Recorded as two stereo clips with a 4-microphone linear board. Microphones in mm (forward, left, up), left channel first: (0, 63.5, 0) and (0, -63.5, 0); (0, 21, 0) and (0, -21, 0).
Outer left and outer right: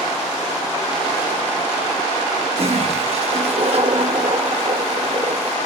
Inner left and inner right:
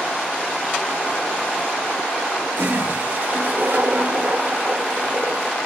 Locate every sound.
2.5 s a toilet flushing: 50° right (ahead or behind), 1.0 m